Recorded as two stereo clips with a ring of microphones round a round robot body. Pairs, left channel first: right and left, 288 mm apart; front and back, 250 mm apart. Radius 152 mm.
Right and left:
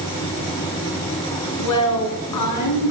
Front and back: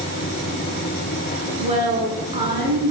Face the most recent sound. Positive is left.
turn(degrees=-110)